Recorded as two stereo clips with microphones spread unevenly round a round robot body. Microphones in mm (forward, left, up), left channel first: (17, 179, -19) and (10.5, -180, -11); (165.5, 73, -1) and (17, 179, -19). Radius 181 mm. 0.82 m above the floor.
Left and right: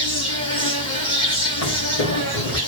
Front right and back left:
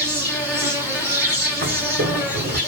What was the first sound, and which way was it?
An insect, 150° right.